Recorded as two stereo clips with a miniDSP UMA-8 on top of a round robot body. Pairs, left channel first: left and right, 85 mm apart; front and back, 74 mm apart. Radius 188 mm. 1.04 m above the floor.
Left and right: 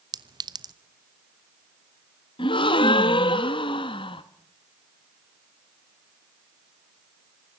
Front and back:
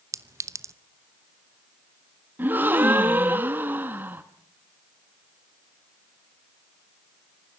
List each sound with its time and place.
0.1 s a clink: 130° right, 1.0 m
2.4 s a gasp: 110° left, 0.6 m